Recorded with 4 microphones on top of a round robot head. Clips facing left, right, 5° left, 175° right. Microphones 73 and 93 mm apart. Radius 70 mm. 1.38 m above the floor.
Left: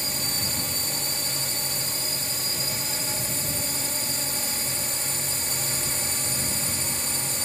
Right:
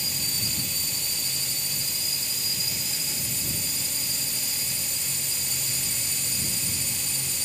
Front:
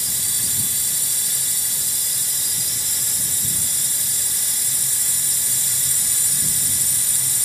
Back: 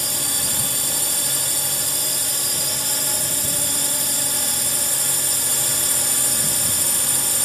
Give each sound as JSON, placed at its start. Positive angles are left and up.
{"t": 0.0, "sound": "a drone", "azimuth_deg": 155}